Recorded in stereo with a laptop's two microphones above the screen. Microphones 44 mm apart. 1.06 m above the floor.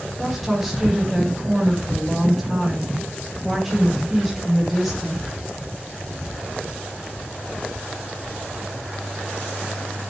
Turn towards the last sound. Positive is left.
turn(degrees=0)  # may be behind; listen again after turning